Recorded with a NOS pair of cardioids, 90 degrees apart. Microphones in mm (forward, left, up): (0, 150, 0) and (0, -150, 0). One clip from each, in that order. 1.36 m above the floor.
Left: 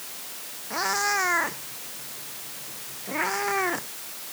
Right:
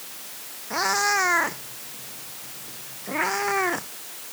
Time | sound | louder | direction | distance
0.7 | a cat meowing | right 3 dB | 25° right | ?